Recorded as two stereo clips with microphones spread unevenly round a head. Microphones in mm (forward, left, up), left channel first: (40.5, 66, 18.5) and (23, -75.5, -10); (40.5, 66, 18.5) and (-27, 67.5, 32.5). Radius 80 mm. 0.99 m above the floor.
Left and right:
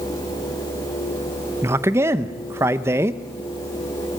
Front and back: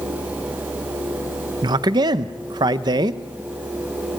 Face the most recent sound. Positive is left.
turn(degrees=-160)